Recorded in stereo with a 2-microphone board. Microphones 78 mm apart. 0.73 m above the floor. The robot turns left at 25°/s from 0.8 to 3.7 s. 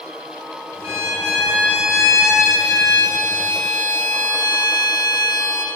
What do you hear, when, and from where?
0.8 s a violin: 135° right, 1.7 m; by 5.7 s 150° left, 1.7 m